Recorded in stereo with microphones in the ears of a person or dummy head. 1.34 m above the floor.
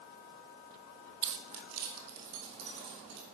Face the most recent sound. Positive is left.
turn(degrees=-85)